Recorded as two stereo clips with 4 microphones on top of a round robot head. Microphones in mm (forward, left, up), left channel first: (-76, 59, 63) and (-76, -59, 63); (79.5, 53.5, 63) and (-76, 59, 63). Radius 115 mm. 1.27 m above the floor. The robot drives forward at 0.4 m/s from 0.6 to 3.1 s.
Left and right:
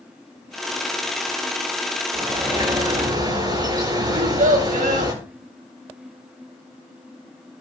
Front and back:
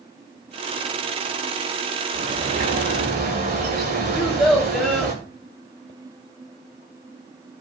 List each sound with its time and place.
2.1 s a bird: 145° right, 9.5 m
4.1 s a child speaking: 90° right, 3 m